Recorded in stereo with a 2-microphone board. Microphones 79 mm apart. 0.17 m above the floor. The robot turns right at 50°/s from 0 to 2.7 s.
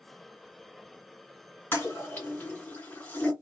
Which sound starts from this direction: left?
A toilet flushing, at 1.7 s.